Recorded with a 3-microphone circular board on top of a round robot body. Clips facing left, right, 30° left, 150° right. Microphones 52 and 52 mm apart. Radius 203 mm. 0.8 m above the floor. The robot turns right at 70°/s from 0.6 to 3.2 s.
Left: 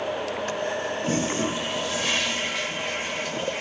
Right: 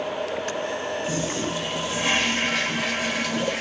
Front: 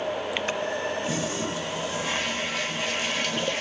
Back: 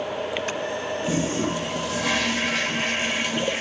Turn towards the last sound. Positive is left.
turn(degrees=-75)